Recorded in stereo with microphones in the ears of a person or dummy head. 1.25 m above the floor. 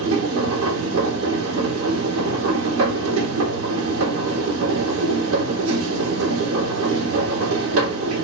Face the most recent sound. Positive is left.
turn(degrees=-85)